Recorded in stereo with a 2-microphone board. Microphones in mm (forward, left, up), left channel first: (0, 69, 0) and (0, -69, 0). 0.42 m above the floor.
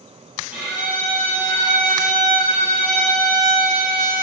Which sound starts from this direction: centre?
A violin, at 0.5 s.